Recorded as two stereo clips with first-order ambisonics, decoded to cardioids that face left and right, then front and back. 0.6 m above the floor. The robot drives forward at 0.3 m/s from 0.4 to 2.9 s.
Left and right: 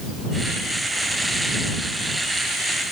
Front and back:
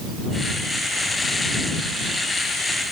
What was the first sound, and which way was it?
Only background noise.